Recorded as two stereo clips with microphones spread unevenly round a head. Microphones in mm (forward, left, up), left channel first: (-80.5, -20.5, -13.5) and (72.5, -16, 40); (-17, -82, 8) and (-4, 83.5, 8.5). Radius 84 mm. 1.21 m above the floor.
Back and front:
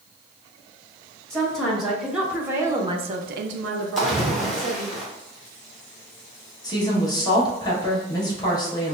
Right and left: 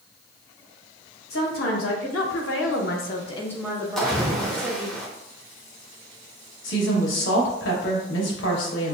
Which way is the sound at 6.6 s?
110° right.